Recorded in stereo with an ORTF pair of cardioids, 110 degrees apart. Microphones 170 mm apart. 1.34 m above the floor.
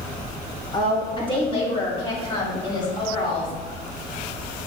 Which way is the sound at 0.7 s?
25° left.